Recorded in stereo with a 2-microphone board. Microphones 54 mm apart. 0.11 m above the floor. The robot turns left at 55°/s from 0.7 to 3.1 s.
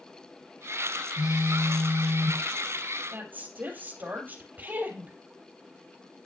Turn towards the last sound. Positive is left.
turn(degrees=-35)  # may be behind; listen again after turning